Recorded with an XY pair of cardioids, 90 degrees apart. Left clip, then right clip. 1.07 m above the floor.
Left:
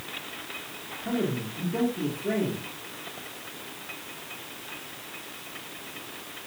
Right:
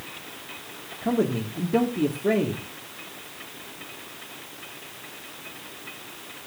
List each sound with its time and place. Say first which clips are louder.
1.0 s a man speaking: right 5 dB; 70° right, 2.0 m